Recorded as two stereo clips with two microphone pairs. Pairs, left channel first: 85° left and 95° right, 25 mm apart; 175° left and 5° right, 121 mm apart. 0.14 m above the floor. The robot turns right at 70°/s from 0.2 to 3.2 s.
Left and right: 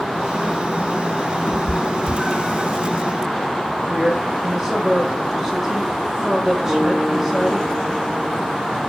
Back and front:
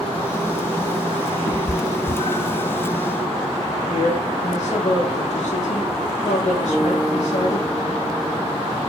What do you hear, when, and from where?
1.5 s a cat meowing: 135° left, 0.8 m; by 2.7 s 140° right, 0.8 m
3.9 s a woman speaking: 175° right, 5.5 m
6.7 s a guitar: 135° right, 2.5 m